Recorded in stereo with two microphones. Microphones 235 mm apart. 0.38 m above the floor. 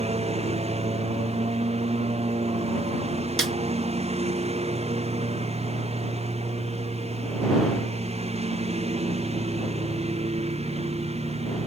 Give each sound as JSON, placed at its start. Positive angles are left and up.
{"t": 0.0, "sound": "a lawn mower", "side_deg": -25}
{"t": 3.4, "sound": "a snare drum", "side_deg": -60}